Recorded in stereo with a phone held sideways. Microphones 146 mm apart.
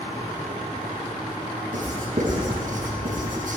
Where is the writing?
65° right (ahead or behind), 4.5 m.